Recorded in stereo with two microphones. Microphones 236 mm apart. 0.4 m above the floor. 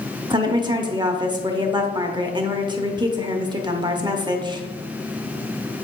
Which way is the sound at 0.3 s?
20° right (ahead or behind).